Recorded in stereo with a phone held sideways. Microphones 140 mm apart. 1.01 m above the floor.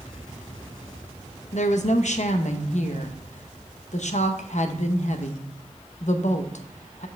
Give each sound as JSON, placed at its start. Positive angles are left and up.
{"t": 1.5, "sound": "a woman speaking", "side_deg": 60, "distance_m": 0.8}